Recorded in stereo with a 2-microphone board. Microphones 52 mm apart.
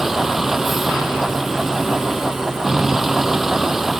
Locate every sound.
0.0 s a vehicle: 5° right (ahead or behind)